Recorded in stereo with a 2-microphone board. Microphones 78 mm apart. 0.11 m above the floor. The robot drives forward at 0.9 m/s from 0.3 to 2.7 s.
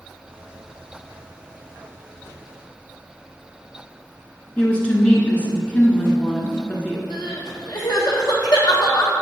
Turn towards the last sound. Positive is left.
turn(degrees=65)  # may be behind; listen again after turning